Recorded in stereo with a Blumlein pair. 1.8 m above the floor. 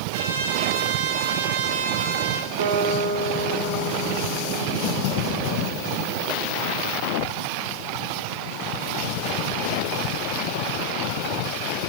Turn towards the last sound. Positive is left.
turn(degrees=-65)